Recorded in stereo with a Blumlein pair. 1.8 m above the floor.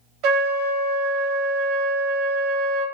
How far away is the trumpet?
About 0.5 m.